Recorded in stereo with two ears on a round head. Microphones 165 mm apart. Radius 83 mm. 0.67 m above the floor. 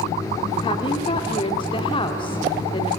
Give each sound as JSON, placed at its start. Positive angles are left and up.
{"t": 0.6, "sound": "a woman speaking", "side_deg": 30, "distance_m": 2.0}